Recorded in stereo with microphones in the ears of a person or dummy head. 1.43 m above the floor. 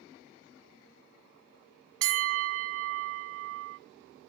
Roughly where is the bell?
Right.